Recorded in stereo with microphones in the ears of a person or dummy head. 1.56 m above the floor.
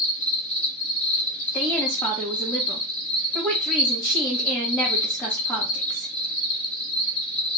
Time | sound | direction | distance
0.0 | an insect | 15° left (ahead or behind) | 1.9 m
1.5 | a woman speaking | 10° left (ahead or behind) | 1.9 m